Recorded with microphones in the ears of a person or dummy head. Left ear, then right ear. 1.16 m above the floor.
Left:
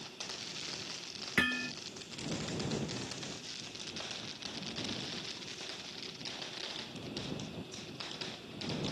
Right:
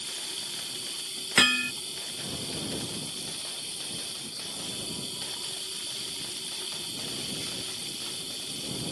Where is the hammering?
50° right (ahead or behind).